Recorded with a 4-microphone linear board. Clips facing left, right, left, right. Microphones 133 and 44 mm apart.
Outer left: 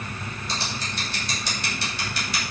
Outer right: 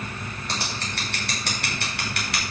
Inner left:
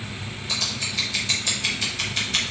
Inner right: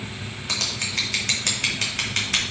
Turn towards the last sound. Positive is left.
turn(degrees=-60)  # may be behind; listen again after turning